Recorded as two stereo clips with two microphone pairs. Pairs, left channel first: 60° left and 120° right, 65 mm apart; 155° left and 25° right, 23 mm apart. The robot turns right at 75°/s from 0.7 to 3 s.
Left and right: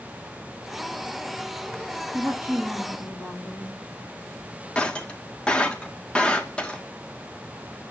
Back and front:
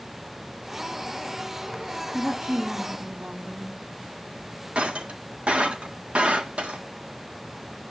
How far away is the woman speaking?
About 3.5 m.